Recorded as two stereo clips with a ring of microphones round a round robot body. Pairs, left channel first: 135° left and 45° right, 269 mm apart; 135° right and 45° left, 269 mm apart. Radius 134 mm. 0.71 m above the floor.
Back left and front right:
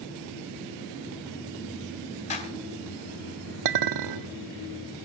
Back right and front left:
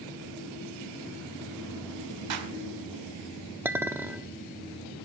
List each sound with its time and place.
2.3 s a clap: 70° left, 3 m
3.6 s a clink: 35° right, 1.0 m